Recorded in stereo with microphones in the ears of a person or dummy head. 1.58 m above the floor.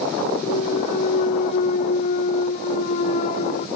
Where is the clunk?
45° left (ahead or behind).